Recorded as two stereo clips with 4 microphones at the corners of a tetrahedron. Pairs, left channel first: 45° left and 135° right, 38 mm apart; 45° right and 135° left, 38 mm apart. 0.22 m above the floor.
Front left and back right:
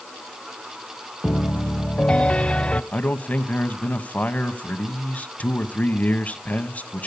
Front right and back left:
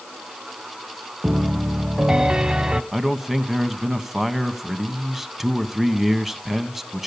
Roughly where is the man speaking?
Ahead left.